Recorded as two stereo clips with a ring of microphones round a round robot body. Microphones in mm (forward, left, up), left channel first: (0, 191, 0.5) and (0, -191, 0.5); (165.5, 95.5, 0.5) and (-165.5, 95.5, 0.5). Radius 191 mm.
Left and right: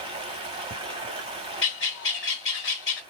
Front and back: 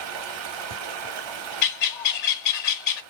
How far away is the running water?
About 1.0 m.